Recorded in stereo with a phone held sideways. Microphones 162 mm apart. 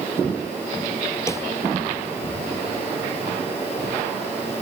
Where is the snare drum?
15° left (ahead or behind).